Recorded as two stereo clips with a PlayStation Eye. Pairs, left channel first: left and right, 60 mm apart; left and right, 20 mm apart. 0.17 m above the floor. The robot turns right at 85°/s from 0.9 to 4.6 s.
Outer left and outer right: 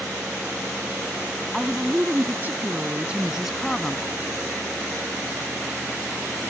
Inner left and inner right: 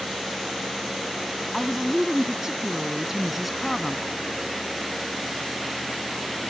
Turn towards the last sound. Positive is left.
turn(degrees=85)